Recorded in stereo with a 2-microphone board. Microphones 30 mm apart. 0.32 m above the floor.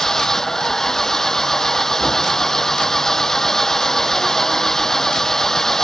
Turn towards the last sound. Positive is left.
turn(degrees=15)  # may be behind; listen again after turning